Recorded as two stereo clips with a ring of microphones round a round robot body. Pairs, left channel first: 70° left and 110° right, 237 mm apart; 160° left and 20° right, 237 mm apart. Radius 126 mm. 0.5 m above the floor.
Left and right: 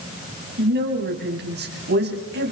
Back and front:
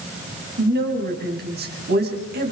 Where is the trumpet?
I don't hear a trumpet.